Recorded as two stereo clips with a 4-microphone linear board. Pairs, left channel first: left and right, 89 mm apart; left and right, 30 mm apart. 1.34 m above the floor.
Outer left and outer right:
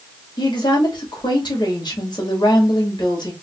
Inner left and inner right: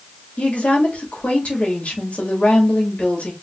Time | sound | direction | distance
0.4 | a woman speaking | 60° left (ahead or behind) | 2.5 m